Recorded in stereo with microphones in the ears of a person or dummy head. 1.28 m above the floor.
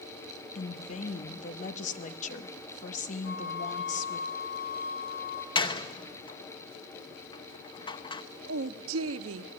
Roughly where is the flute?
Left.